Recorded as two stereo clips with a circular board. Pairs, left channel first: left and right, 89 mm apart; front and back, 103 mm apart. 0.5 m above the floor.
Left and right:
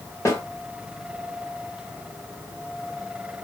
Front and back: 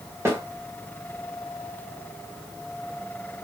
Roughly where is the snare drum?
Behind left.